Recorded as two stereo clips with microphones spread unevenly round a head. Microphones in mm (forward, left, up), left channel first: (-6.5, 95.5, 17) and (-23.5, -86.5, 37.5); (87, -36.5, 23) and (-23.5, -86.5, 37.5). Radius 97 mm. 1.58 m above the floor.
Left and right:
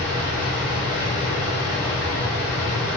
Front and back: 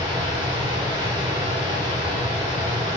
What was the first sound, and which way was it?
A machine running, 35° left.